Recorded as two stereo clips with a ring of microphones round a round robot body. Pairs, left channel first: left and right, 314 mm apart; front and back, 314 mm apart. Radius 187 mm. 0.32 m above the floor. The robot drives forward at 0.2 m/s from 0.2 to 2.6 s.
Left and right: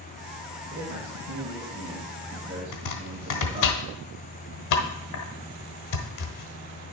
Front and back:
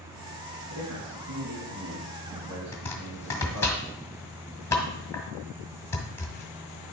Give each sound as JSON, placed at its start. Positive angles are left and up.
{"t": 0.7, "sound": "a man speaking", "azimuth_deg": -150, "distance_m": 2.5}
{"t": 2.7, "sound": "chopping", "azimuth_deg": 80, "distance_m": 1.3}